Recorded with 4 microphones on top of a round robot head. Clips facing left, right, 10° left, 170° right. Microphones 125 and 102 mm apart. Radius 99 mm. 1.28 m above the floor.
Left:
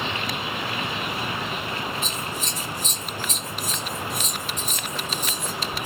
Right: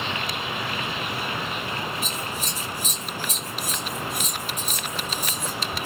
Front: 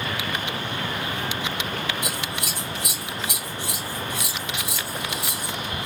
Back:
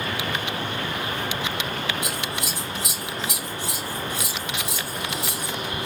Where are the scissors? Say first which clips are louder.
Even, back 1 dB; 15° right, 1.2 m.